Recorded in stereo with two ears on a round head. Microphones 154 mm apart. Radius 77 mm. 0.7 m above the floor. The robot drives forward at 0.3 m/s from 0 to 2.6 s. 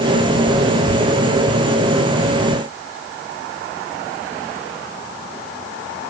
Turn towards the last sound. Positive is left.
No sound to turn to.